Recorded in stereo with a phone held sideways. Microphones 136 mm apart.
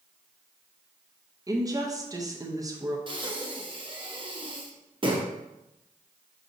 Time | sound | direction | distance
1.5 | a woman speaking | 25° right (ahead or behind) | 0.6 m
3.1 | breathing | 35° right (ahead or behind) | 0.6 m